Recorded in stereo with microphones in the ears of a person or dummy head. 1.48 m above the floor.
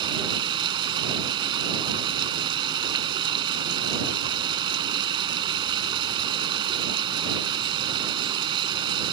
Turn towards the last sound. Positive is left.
turn(degrees=-25)  # may be behind; listen again after turning